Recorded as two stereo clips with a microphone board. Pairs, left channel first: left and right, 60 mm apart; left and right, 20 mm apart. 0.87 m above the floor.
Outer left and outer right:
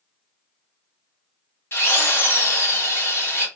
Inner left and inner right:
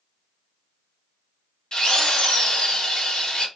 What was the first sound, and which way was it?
A drill, 40° left (ahead or behind).